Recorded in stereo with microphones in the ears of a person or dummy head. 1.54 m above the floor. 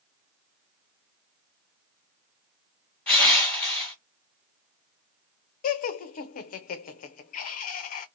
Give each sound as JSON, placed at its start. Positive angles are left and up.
{"t": 3.1, "sound": "crushing", "side_deg": 10, "distance_m": 1.6}
{"t": 5.6, "sound": "laughter", "side_deg": 40, "distance_m": 0.5}